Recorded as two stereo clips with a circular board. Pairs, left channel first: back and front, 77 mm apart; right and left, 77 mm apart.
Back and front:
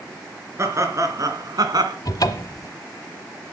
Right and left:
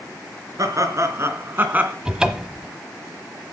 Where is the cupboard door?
165° left, 1.1 m.